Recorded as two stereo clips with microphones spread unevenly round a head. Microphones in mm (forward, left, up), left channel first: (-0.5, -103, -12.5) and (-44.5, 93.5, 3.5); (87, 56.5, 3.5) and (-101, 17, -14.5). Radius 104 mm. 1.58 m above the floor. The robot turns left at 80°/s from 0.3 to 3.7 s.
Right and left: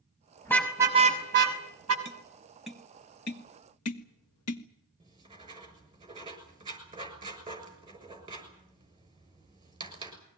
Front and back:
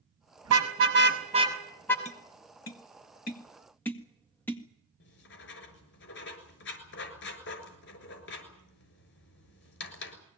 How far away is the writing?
About 6.5 m.